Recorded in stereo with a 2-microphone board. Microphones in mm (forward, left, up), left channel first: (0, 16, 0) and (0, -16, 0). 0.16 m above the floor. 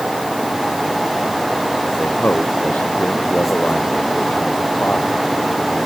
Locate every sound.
2.0 s a man speaking: 65° left (ahead or behind); by 5.9 s 70° left (ahead or behind)